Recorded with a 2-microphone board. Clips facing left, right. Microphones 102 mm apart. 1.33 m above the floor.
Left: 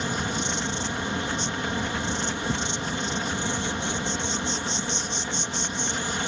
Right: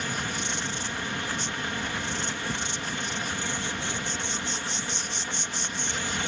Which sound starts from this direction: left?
An insect, at 0.0 s.